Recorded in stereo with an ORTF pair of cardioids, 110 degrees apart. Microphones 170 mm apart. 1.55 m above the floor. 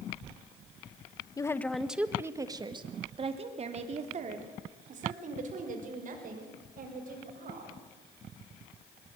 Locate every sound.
1.4 s a woman speaking: 20° left, 1.3 m; by 7.8 s 55° right, 7.5 m